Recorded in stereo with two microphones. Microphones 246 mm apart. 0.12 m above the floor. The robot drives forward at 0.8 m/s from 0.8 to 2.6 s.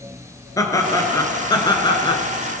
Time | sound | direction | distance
0.6 | laughter | 15° left (ahead or behind) | 1.9 m